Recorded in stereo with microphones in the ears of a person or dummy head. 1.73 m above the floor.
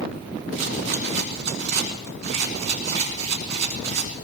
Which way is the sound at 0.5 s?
55° right (ahead or behind).